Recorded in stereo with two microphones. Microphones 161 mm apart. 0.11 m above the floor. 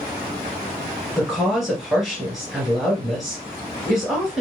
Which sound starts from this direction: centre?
A woman speaking, at 1.2 s.